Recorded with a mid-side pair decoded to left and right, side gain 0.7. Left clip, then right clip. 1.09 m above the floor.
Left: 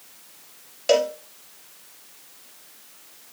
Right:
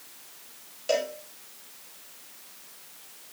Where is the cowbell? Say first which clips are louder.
Left 7 dB; 40° left, 1.2 m.